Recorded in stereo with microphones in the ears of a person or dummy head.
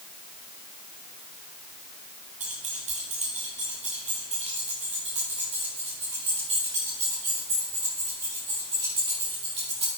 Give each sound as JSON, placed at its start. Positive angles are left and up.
{"t": 2.4, "sound": "keys jangling", "side_deg": -40, "distance_m": 1.2}